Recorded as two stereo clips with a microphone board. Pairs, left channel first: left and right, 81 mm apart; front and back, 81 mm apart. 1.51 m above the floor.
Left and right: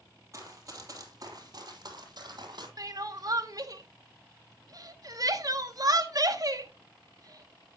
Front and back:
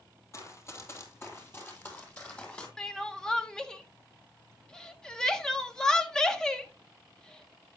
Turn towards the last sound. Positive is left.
turn(degrees=-80)